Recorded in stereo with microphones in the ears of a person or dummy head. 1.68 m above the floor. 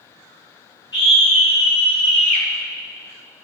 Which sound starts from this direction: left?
A scream, at 0.9 s.